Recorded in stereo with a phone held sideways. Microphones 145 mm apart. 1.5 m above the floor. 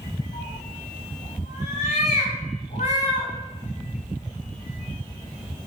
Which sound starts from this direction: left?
A cat meowing, at 0.3 s.